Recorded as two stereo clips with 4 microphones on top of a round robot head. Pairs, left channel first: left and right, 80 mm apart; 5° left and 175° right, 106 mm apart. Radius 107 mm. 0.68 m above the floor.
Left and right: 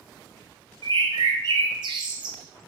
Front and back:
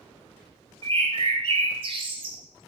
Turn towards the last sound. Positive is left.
turn(degrees=-130)